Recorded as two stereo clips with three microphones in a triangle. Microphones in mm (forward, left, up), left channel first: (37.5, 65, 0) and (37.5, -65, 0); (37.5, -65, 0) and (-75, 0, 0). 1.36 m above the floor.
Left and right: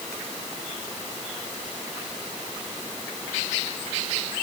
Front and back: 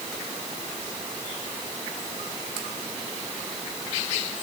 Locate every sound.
Only background noise.